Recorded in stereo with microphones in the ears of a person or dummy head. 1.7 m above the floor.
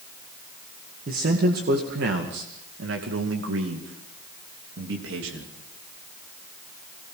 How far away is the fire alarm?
I don't hear a fire alarm.